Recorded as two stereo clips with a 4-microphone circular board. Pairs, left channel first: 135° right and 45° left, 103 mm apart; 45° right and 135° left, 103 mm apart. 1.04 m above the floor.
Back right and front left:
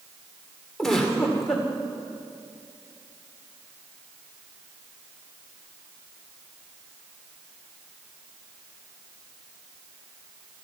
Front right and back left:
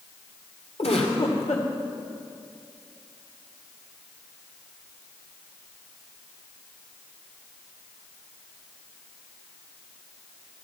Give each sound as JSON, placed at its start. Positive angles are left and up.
{"t": 0.8, "sound": "a giggle", "azimuth_deg": -50, "distance_m": 2.0}